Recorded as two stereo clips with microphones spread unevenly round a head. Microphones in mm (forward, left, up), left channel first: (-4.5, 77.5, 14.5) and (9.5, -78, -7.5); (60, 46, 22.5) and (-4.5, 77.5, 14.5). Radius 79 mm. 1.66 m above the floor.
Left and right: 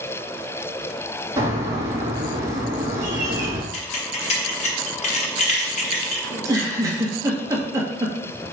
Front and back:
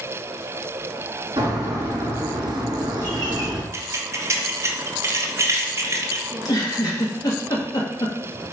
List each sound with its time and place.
1.4 s a bird: 155° right, 3 m
3.7 s keys jangling: 110° left, 1.3 m
6.3 s a giggle: 15° right, 1.7 m